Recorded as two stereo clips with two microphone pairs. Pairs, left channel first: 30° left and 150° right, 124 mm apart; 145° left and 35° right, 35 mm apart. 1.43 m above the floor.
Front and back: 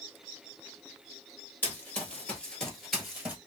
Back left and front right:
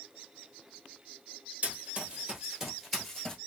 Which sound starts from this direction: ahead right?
Running footsteps, at 1.6 s.